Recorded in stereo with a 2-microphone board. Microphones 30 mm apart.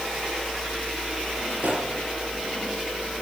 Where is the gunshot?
55° right (ahead or behind), 4.5 m.